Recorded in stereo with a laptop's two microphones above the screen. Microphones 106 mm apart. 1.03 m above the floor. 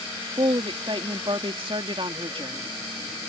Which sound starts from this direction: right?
A woman speaking, at 0.4 s.